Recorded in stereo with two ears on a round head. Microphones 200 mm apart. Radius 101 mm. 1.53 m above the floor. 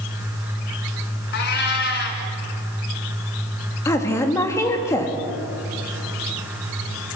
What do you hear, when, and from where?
1.3 s a cat meowing: 50° left (ahead or behind), 2 m
3.9 s a woman speaking: 15° left (ahead or behind), 2.5 m